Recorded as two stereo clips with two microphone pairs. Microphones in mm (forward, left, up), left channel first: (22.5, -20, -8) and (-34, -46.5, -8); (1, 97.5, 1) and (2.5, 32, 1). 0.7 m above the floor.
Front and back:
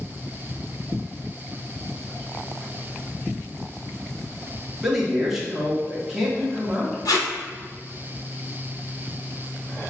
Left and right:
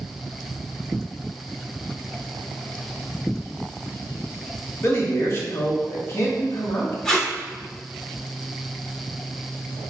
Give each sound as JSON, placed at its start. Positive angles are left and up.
{"t": 4.8, "sound": "a man speaking", "azimuth_deg": 120, "distance_m": 1.0}
{"t": 7.0, "sound": "tape being pulled", "azimuth_deg": 10, "distance_m": 0.8}